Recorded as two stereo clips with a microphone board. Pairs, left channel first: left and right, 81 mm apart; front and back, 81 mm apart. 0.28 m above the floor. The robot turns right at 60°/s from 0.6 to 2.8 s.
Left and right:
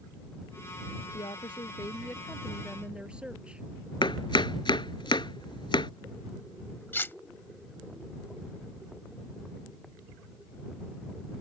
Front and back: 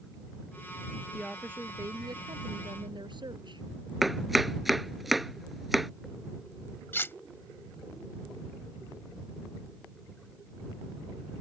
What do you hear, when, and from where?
1.1 s a woman speaking: 90° left; by 3.6 s 170° right
4.0 s chopping: 90° left
6.9 s cutlery clinking: 45° left